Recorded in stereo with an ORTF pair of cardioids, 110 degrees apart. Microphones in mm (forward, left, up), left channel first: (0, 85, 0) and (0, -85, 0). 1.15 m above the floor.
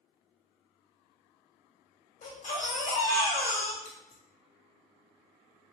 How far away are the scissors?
About 1.6 m.